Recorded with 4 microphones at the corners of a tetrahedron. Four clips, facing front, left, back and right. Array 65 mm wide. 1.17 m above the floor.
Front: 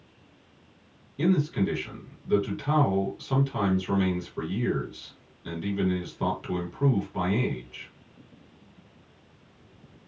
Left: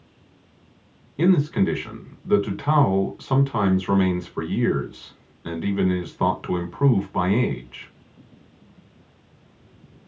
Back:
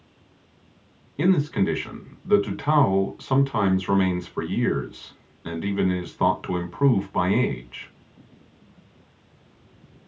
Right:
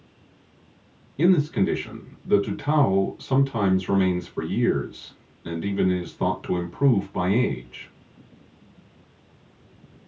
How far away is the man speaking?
About 1.3 m.